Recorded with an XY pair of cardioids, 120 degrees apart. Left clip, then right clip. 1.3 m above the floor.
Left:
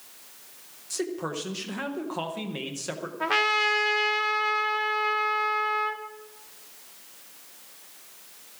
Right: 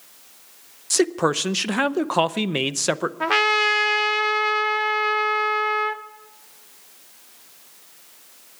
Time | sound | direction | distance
0.9 | a man speaking | 65° right | 0.7 m
3.2 | a trumpet | 25° right | 0.9 m